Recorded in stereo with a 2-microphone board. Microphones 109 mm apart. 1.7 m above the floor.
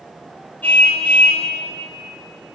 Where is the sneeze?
No sneeze in this recording.